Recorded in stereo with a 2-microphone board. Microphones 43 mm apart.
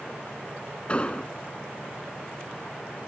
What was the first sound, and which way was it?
An explosion, 30° left (ahead or behind).